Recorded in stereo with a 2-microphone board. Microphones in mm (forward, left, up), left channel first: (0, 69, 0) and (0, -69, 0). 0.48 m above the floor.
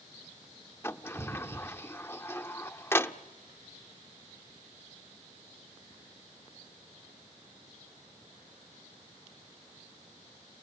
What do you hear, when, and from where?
0.8 s a sliding door: 20° left (ahead or behind), 0.7 m